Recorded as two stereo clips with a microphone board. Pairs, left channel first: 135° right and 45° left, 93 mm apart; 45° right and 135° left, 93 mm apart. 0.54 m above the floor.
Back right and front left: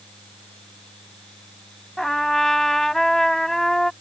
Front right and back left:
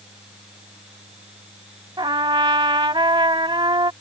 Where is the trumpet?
140° left.